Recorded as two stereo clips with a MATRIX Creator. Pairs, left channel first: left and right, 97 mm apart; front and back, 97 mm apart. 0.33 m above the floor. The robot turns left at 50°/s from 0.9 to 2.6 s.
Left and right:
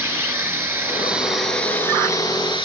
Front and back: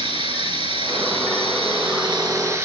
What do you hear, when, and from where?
0.0 s running water: 160° right, 3 m; by 2.7 s 115° left, 3 m